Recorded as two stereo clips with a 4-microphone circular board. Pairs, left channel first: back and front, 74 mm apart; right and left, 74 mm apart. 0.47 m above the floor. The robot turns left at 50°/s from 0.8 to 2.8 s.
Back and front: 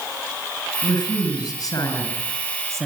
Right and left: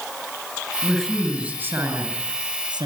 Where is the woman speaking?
170° right, 7 m; by 2.9 s 90° left, 7 m.